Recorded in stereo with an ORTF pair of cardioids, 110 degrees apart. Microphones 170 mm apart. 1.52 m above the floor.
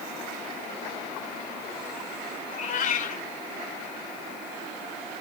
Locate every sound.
2.5 s a cat meowing: 55° left, 4 m